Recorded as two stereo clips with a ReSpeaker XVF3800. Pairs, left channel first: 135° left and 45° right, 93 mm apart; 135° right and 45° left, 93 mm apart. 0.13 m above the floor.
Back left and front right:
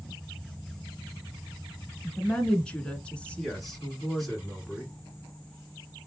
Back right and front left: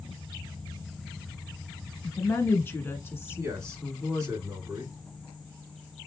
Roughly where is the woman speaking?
Behind.